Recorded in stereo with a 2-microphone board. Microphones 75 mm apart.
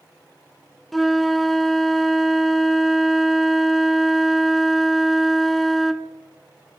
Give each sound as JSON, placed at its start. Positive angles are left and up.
{"t": 0.9, "sound": "a flute", "side_deg": 0, "distance_m": 0.6}